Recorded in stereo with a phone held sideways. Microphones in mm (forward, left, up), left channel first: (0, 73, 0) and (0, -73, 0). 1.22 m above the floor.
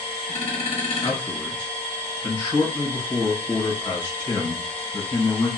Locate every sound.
0.0 s a machine running: 40° left (ahead or behind), 1.0 m
1.0 s a man speaking: 30° left (ahead or behind), 1.4 m